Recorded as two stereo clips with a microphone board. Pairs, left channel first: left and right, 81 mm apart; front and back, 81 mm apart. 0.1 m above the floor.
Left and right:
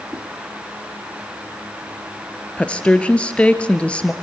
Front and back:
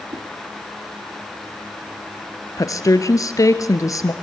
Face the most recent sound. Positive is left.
turn(degrees=20)